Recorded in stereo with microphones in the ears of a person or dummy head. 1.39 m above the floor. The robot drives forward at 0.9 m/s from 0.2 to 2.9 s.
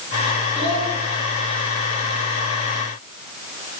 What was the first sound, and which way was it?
A child speaking, 30° right (ahead or behind).